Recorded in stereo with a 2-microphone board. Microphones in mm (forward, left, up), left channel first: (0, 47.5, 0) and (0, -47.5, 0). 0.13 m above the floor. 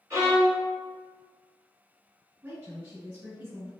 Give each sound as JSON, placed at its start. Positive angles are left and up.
{"t": 0.1, "sound": "a violin", "side_deg": -35, "distance_m": 1.1}
{"t": 2.4, "sound": "a woman speaking", "side_deg": -30, "distance_m": 1.9}